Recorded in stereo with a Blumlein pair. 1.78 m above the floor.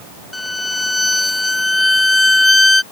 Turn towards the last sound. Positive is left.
turn(degrees=5)